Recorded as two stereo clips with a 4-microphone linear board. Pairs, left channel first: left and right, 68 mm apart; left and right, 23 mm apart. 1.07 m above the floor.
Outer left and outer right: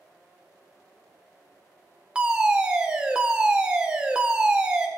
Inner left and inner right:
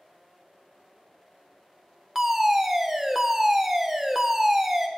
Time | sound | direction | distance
2.1 | a fire alarm | 15° right (ahead or behind) | 1.0 m